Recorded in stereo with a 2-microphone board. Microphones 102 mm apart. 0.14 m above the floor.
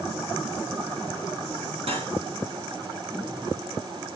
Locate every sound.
1.9 s cutlery clinking: 65° right (ahead or behind), 5.5 m